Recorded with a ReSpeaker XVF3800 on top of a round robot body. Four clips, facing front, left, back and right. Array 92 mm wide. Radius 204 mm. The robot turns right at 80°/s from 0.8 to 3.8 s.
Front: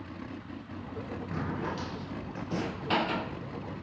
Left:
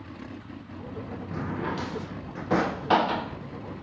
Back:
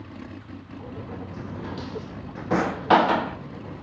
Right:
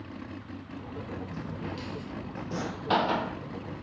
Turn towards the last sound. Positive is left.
turn(degrees=-120)